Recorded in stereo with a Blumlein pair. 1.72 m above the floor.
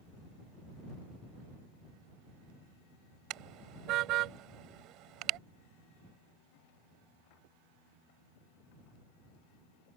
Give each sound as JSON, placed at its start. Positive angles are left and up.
{"t": 3.3, "sound": "a car horn", "azimuth_deg": -35}